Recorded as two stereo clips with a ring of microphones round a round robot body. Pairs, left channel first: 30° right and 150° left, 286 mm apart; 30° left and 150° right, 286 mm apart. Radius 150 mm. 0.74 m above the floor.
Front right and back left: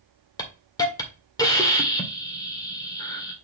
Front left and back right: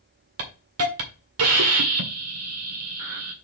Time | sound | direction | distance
0.4 | a hiss | 110° right | 1.9 m